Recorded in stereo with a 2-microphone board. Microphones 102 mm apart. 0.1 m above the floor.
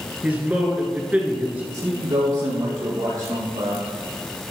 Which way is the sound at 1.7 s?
55° right (ahead or behind).